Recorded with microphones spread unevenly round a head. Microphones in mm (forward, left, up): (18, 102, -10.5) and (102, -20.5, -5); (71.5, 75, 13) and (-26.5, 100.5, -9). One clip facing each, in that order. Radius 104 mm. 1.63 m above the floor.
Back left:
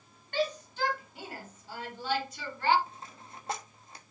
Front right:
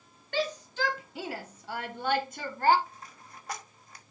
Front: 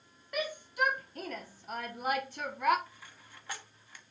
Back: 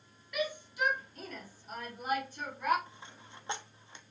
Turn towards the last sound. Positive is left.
turn(degrees=105)